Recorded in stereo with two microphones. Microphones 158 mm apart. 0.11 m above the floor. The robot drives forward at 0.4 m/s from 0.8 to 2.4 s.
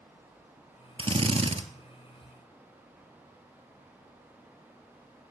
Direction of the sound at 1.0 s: 35° right (ahead or behind).